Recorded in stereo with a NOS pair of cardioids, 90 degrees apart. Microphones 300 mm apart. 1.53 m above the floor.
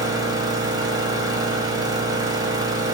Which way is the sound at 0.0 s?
15° right.